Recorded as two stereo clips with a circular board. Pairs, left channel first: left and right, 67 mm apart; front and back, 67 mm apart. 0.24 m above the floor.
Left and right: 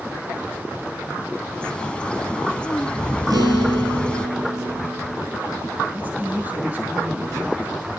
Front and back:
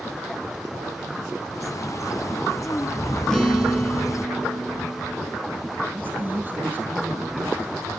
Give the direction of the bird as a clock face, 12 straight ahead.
11 o'clock.